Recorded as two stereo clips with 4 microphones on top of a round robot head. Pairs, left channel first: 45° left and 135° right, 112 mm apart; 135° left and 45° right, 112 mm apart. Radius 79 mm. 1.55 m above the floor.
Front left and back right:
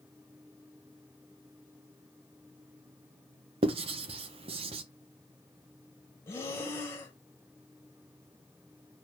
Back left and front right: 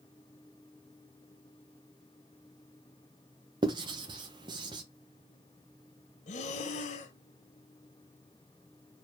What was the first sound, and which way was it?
Writing, 100° right.